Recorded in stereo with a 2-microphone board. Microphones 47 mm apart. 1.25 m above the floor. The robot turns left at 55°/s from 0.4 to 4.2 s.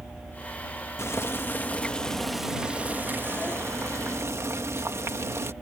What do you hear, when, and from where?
1.0 s boiling: 75° left; by 5.5 s 105° right